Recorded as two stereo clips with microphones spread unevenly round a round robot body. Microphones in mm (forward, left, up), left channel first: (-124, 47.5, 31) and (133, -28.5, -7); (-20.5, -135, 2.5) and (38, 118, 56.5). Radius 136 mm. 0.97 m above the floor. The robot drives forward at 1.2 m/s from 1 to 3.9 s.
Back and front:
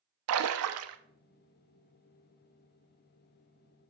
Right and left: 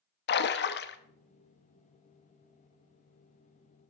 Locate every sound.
0.3 s a splash: 55° right, 0.9 m